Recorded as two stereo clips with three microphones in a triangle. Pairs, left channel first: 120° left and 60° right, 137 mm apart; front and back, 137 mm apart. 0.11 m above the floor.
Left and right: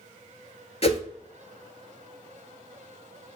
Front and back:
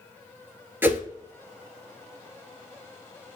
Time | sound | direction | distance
0.8 | a whoosh | 110° left | 0.6 m